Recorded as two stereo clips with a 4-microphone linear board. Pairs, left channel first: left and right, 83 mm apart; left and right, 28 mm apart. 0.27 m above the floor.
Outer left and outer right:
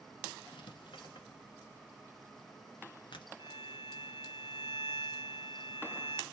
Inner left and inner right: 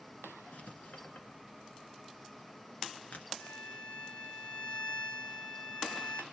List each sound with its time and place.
0.5 s writing: 75° left (ahead or behind), 1.6 m
3.4 s a violin: 60° left (ahead or behind), 2.5 m